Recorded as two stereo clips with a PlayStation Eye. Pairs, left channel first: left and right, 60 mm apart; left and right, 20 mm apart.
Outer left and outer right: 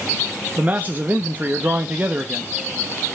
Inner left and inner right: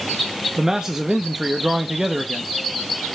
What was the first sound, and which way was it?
A man speaking, 30° right (ahead or behind).